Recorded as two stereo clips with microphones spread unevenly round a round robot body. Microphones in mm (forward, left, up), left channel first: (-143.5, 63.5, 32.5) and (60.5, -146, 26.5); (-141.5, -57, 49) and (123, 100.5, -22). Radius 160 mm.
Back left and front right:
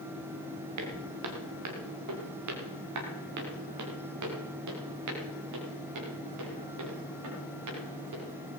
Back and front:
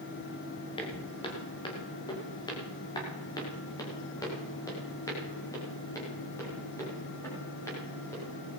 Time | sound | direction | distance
0.8 | footsteps | 75° right | 4 m